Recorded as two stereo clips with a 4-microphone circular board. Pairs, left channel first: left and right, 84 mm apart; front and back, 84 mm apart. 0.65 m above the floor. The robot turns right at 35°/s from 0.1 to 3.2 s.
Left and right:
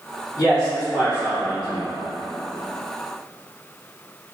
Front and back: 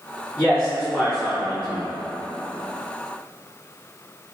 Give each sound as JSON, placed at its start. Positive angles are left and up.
{"t": 0.4, "sound": "a man speaking", "azimuth_deg": 60, "distance_m": 1.1}